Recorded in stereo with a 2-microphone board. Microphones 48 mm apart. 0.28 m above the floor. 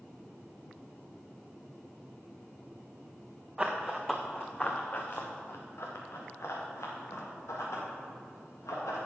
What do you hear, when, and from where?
3.6 s running footsteps: 15° right (ahead or behind), 1.7 m; by 9.0 s 80° left, 6 m